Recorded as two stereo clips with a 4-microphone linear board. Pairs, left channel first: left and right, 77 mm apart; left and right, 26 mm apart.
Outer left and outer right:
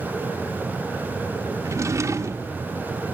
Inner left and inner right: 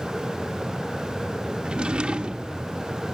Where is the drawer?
45° right (ahead or behind), 0.5 m.